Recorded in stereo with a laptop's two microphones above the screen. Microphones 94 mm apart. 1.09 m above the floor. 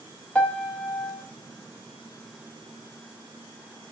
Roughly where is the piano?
Centre.